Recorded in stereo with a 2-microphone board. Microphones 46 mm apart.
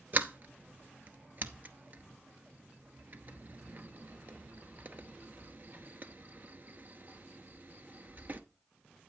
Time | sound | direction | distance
0.1 | a sliding door | 45° right (ahead or behind) | 0.8 m